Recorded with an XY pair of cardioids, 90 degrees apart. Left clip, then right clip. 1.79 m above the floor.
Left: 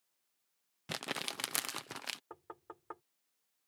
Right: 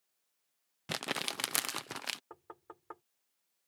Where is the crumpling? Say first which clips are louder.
Right 3 dB; 20° right.